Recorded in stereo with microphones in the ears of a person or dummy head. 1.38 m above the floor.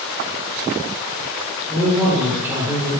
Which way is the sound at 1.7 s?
15° right (ahead or behind).